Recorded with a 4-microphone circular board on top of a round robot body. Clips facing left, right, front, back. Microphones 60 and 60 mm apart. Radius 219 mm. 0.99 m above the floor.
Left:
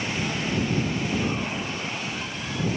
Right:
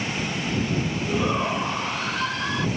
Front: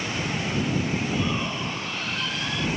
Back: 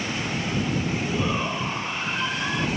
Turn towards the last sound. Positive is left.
turn(degrees=-115)